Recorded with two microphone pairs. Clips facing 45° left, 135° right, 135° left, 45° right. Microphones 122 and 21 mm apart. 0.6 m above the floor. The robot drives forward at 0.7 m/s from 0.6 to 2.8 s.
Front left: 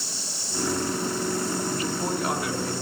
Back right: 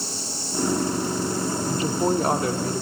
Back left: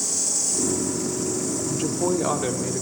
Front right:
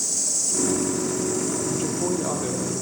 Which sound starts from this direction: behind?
A woman speaking, at 1.7 s.